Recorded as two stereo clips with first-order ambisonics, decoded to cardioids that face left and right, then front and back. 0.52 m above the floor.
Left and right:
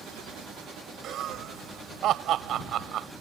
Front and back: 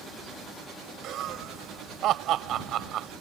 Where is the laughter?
140° right.